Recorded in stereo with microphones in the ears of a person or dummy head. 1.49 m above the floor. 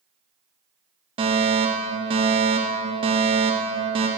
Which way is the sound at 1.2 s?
25° right (ahead or behind).